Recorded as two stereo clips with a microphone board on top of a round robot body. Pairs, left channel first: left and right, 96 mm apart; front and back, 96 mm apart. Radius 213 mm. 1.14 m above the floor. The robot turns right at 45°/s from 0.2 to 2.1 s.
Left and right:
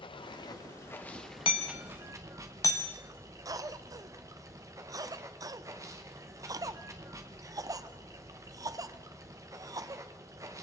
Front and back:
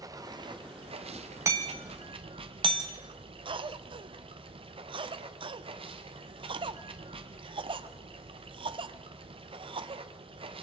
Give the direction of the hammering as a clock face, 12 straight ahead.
8 o'clock.